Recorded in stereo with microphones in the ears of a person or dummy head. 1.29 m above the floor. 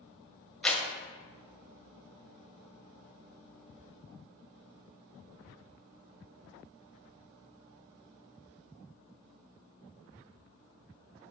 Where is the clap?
5° left (ahead or behind), 1.0 m.